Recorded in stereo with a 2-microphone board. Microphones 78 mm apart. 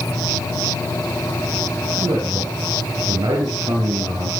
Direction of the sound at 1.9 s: 60° right (ahead or behind).